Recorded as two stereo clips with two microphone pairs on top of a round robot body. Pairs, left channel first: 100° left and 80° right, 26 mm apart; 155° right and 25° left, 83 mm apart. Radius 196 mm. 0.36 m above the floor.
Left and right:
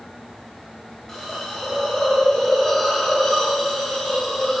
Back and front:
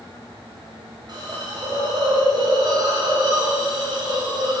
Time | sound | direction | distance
1.1 | a hiss | 20° left | 2.5 m